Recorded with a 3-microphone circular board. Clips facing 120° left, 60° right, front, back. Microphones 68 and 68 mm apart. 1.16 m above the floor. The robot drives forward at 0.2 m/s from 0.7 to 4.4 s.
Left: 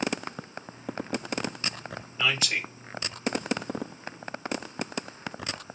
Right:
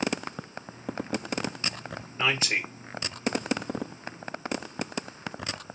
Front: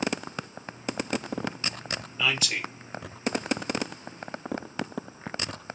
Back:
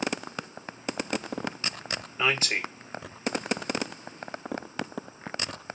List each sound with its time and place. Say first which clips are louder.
2.2 s a man speaking: right 1 dB, back 2 dB; 120° right, 1.2 m